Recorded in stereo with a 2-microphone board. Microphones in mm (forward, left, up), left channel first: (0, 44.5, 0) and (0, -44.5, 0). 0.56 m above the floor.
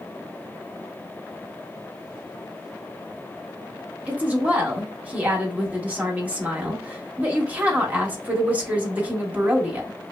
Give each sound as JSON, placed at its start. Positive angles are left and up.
{"t": 4.1, "sound": "a woman speaking", "side_deg": -15, "distance_m": 1.2}